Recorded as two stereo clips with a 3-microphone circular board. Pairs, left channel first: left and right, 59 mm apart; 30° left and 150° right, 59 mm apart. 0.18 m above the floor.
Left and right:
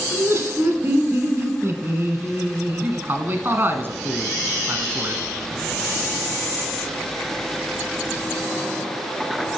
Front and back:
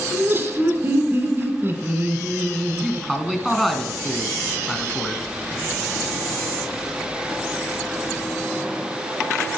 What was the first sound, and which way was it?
Laughter, 130° right.